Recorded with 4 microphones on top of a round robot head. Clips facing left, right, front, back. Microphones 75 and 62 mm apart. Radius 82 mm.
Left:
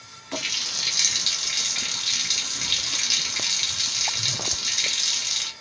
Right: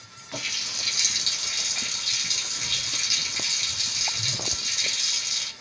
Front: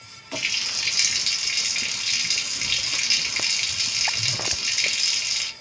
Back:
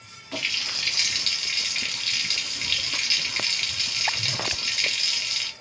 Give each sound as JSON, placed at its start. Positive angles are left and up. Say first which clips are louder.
{"t": 0.3, "sound": "a running tap", "louder": "left 3 dB, front 1 dB", "azimuth_deg": 80, "distance_m": 0.9}